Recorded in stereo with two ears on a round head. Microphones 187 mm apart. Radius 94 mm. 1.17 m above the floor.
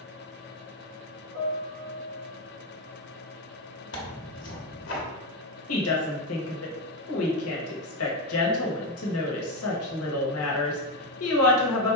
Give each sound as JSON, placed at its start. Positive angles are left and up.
{"t": 1.3, "sound": "a piano", "side_deg": -80, "distance_m": 1.9}
{"t": 3.9, "sound": "tearing paper", "side_deg": 60, "distance_m": 1.1}
{"t": 5.7, "sound": "a woman speaking", "side_deg": 75, "distance_m": 1.0}